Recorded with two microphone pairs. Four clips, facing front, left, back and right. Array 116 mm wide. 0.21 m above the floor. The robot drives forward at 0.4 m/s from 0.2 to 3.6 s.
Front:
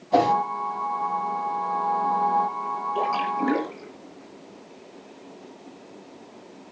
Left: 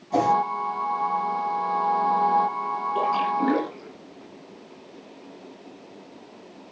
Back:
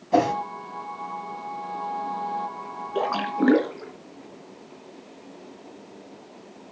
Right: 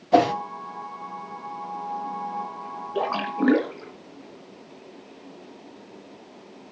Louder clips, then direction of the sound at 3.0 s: Left 1 dB, back 2 dB; 155° right.